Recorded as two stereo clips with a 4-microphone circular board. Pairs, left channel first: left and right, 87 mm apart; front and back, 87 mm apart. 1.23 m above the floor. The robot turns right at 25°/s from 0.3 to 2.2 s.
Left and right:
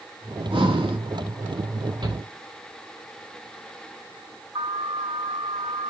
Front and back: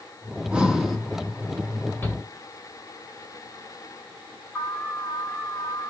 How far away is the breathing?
About 1.7 m.